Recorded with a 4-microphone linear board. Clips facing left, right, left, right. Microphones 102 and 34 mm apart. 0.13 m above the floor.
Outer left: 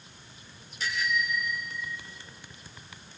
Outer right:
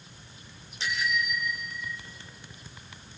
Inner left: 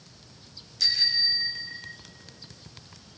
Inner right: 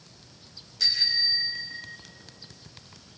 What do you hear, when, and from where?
0.8 s a bicycle bell: 30° right (ahead or behind), 5.5 m; by 2.0 s 40° right (ahead or behind), 7 m